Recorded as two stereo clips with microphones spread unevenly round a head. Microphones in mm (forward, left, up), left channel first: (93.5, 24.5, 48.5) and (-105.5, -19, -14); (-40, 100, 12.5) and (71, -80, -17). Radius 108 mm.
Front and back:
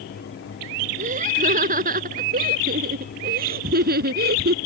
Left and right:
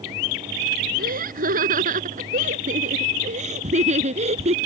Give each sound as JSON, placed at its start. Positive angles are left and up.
{"t": 1.0, "sound": "laughter", "azimuth_deg": -110}